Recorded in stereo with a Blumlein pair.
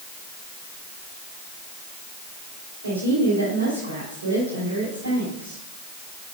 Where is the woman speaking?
65° right, 4.5 m.